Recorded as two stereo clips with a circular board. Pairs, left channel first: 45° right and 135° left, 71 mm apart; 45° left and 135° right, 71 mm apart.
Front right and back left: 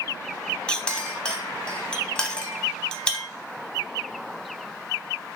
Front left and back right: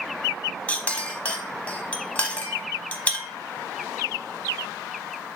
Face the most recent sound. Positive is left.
turn(degrees=10)